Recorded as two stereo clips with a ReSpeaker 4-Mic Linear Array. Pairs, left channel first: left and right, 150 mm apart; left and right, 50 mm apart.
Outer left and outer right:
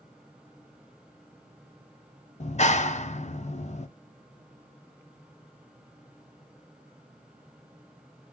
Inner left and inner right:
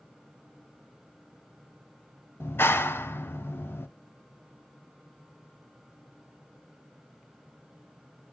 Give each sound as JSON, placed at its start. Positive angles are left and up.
{"t": 2.4, "sound": "a clap", "side_deg": 50, "distance_m": 0.7}